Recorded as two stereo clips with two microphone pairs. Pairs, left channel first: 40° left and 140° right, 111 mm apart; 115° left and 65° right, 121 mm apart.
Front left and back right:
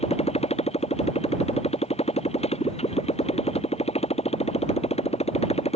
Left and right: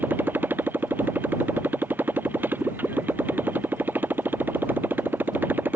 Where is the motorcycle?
10° left.